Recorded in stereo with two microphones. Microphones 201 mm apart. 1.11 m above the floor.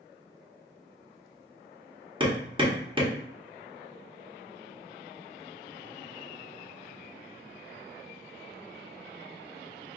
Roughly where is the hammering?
Right.